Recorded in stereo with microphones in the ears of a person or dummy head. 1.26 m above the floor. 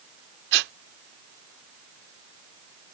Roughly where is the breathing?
Right.